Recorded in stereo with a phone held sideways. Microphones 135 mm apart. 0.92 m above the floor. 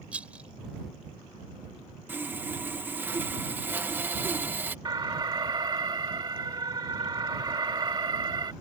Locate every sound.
0.1 s a rattle: 10° right (ahead or behind)
2.1 s sawing: 15° right (ahead or behind)
4.8 s an alarm: 30° right (ahead or behind)